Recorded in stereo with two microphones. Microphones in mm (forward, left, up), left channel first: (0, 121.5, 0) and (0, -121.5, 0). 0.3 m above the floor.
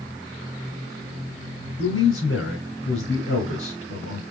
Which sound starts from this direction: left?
A man speaking, at 1.8 s.